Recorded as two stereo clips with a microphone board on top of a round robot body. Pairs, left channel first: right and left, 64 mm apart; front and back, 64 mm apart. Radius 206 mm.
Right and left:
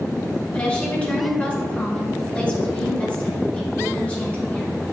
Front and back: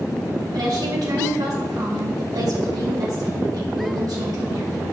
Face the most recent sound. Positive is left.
turn(degrees=-160)